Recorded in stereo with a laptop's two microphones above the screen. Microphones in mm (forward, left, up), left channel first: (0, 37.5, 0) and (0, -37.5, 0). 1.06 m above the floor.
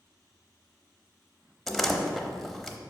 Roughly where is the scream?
No scream in this recording.